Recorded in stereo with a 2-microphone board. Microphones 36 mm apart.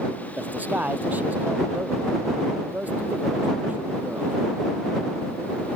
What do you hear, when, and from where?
0.4 s a man speaking: 50° right (ahead or behind)